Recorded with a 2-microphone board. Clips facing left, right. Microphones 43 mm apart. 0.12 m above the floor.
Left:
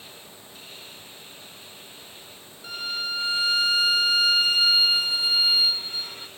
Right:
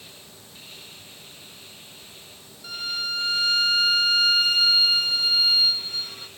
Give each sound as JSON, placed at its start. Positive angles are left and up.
{"t": 2.6, "sound": "a violin", "side_deg": 10, "distance_m": 0.6}